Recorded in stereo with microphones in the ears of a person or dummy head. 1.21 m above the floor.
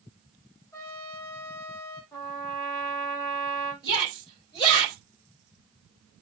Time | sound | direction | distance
0.7 | a trumpet | 10° left (ahead or behind) | 6 m
2.1 | a trumpet | 10° left (ahead or behind) | 4.5 m
3.8 | a shout | 20° left (ahead or behind) | 5.5 m